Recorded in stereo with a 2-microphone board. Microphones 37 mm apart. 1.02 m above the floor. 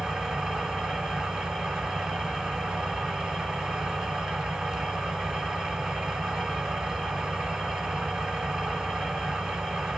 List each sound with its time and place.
0.0 s an engine running: centre (ahead or behind), 6.5 m